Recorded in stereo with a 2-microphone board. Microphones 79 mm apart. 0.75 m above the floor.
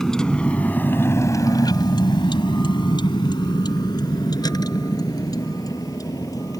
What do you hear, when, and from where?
0.0 s a vehicle: 5° left (ahead or behind); by 6.6 s 45° left (ahead or behind)